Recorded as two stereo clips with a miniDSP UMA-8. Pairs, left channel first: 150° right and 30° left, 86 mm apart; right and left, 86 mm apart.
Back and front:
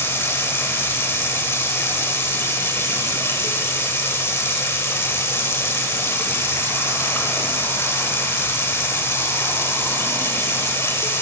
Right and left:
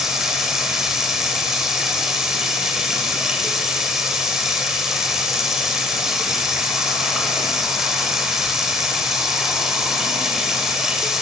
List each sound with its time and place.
0.0 s running water: 170° left, 0.9 m